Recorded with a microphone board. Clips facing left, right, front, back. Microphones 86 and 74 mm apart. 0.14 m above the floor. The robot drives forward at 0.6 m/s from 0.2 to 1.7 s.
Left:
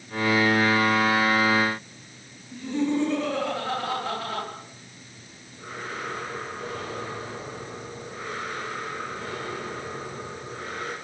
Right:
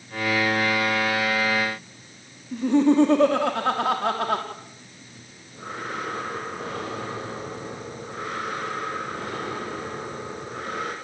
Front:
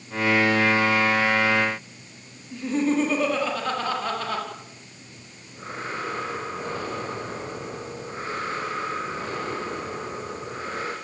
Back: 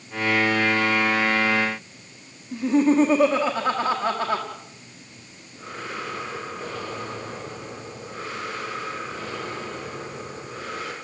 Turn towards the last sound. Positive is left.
turn(degrees=-60)